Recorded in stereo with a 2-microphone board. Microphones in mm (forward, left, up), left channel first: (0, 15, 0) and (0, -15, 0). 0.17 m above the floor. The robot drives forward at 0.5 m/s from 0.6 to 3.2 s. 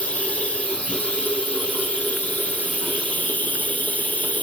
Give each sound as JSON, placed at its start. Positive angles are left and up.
{"t": 0.0, "sound": "running water", "side_deg": 50, "distance_m": 3.0}